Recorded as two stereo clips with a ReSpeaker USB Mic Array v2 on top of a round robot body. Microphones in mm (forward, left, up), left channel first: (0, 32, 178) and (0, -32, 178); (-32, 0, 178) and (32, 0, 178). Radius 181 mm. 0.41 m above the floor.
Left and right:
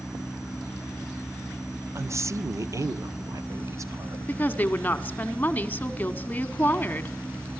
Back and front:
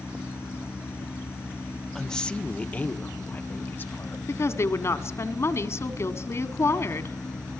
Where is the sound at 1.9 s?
95° right, 1.0 m; by 4.2 s 125° right, 3 m.